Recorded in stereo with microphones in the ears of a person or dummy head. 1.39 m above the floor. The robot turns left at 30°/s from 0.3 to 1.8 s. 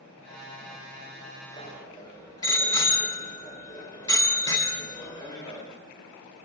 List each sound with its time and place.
1.6 s a bicycle bell: 25° left (ahead or behind), 3.5 m; by 5.7 s 20° left (ahead or behind), 3.5 m